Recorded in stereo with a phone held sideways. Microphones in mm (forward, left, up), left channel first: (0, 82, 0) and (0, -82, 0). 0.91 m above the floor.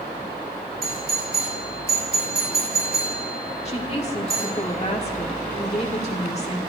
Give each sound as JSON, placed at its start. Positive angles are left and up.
{"t": 0.8, "sound": "a doorbell", "side_deg": -80, "distance_m": 6.5}
{"t": 3.6, "sound": "a woman speaking", "side_deg": 40, "distance_m": 2.0}